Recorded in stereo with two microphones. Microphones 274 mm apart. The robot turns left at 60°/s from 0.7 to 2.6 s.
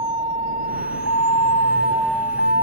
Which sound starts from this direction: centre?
A vehicle, at 0.0 s.